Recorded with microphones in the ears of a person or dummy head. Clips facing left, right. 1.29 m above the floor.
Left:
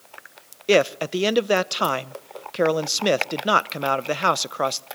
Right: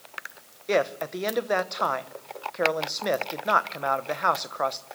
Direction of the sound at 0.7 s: 50° left (ahead or behind).